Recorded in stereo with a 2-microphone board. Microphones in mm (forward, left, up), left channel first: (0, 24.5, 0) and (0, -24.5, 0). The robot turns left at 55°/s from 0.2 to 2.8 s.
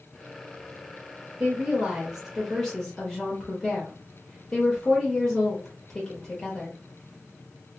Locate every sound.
1.4 s a woman speaking: 115° right, 0.9 m; by 6.8 s 170° left, 0.9 m